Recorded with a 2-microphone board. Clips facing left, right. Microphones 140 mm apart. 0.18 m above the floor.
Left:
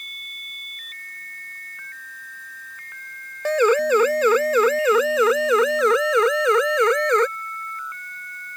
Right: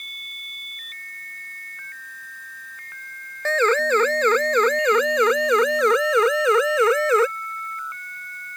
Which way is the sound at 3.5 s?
10° left (ahead or behind).